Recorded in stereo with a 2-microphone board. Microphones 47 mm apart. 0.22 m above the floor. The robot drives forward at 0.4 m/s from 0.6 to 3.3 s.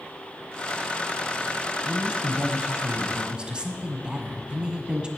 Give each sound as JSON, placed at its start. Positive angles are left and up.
{"t": 1.9, "sound": "a woman speaking", "side_deg": -20, "distance_m": 1.2}